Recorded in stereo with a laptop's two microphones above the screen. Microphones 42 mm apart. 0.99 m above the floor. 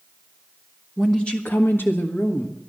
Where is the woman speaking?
10° left (ahead or behind), 1.1 m; by 2.6 s 75° left (ahead or behind), 2 m.